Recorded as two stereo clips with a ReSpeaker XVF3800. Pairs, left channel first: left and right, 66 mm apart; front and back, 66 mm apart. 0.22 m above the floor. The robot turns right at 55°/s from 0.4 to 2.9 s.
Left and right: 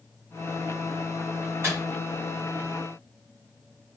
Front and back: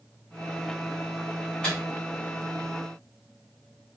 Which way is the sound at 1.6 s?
65° right.